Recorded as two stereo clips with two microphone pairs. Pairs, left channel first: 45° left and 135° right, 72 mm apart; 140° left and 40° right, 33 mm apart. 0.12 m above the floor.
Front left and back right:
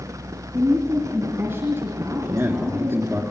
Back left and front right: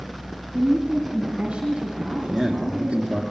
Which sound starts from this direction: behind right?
A man speaking, at 2.0 s.